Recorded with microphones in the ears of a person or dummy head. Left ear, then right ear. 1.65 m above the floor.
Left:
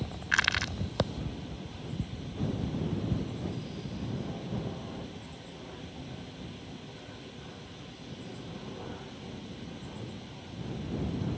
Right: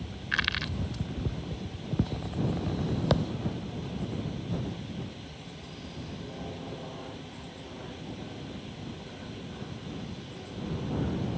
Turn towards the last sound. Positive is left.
turn(degrees=30)  # may be behind; listen again after turning